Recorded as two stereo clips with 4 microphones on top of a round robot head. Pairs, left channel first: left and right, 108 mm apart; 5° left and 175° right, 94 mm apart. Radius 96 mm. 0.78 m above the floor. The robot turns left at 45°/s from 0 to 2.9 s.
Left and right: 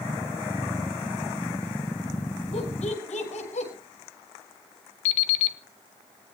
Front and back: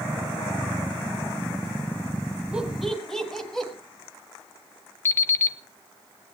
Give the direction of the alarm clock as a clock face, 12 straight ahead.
10 o'clock.